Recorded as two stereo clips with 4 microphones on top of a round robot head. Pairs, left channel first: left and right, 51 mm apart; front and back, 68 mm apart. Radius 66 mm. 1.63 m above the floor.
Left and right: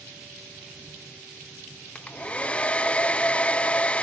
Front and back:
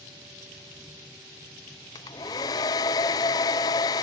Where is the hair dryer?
25° left, 0.5 m.